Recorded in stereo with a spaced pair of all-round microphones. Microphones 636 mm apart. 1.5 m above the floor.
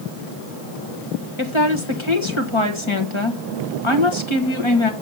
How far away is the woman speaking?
About 1.7 m.